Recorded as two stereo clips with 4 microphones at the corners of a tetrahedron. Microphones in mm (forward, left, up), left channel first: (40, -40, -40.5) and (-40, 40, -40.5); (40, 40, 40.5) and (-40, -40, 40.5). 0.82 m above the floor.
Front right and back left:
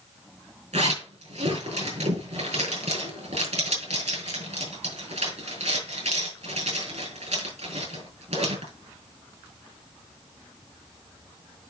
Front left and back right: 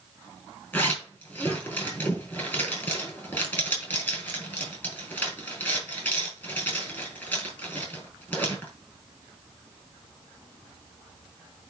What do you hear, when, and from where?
0.7 s a zipper: 125° left, 4.5 m